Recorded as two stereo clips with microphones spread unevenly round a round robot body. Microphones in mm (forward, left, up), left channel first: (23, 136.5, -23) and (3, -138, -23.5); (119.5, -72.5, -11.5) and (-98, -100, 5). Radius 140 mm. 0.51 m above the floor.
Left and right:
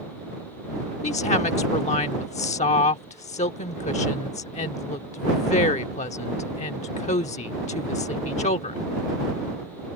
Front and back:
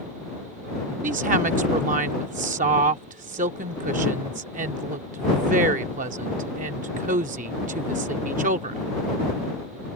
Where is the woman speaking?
140° left.